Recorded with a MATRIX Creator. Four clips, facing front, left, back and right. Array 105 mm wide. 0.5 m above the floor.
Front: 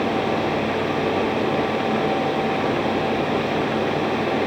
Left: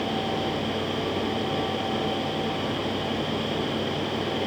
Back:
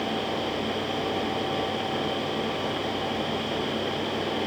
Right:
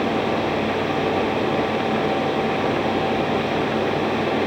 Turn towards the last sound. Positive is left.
No sound to turn to.